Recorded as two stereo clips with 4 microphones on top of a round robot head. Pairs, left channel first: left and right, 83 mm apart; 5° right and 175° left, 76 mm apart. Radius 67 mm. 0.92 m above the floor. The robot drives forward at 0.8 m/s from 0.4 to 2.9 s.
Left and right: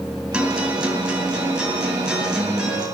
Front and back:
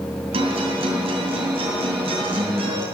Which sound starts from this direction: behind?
A guitar, at 0.3 s.